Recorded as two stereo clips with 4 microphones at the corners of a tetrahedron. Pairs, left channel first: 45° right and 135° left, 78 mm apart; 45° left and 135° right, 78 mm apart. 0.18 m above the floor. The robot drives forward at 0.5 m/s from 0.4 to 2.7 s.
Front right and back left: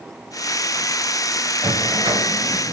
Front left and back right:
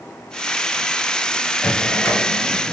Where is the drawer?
110° left, 1.3 m; by 2.7 s 130° left, 1.6 m.